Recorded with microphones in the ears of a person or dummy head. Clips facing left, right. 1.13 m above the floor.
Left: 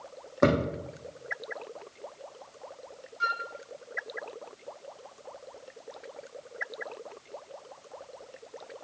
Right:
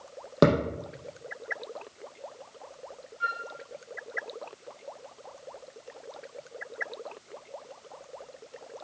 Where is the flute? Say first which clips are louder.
Left 2 dB; 65° left (ahead or behind), 0.6 m.